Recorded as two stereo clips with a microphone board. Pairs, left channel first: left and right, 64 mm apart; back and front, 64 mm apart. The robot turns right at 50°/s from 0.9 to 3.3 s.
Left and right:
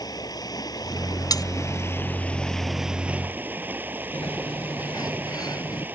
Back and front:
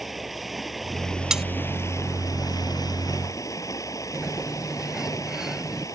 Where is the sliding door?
80° left.